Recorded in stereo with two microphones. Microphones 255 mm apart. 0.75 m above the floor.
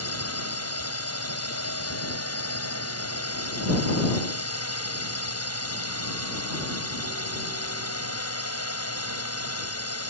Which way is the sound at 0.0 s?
70° left (ahead or behind).